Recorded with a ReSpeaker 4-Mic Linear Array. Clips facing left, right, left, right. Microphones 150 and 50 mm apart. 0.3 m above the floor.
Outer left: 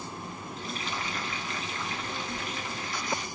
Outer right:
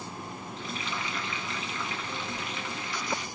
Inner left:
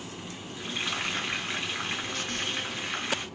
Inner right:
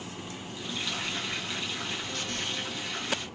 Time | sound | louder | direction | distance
0.6 | frying | even, inner left 3 dB | 40° left (ahead or behind) | 1.1 m